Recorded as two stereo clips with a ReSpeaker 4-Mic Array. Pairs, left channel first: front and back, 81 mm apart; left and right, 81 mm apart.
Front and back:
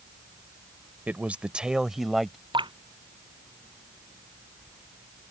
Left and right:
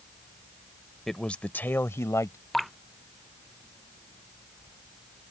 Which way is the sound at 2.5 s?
Straight behind.